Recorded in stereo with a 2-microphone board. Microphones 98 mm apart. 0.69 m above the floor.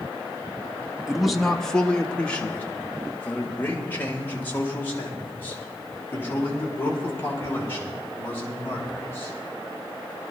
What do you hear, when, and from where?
1.1 s a man speaking: 5° right (ahead or behind), 0.7 m; by 9.3 s 25° left (ahead or behind), 5.5 m